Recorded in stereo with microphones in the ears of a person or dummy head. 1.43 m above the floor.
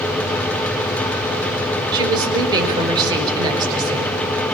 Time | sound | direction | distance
1.9 | a woman speaking | 25° right (ahead or behind) | 5.5 m